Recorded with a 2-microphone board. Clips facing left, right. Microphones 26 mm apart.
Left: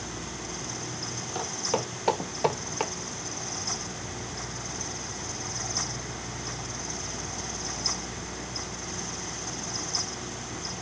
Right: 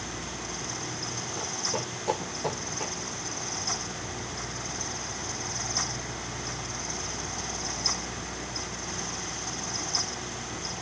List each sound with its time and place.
1.4 s footsteps: 50° left (ahead or behind), 4.5 m; by 2.9 s 55° left (ahead or behind), 2.5 m